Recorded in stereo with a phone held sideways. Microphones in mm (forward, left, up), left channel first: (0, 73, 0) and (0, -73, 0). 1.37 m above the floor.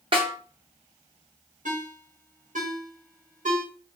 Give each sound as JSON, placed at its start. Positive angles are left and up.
{"t": 0.1, "sound": "a snare drum", "side_deg": -40, "distance_m": 1.3}
{"t": 1.6, "sound": "a ringtone", "side_deg": -60, "distance_m": 1.2}